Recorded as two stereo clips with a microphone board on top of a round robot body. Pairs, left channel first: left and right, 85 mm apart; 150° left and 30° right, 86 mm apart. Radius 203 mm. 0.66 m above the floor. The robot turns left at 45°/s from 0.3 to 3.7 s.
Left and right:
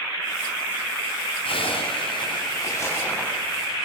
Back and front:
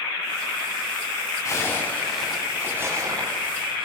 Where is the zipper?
95° left, 7.5 m; by 3.9 s 5° right, 7.5 m.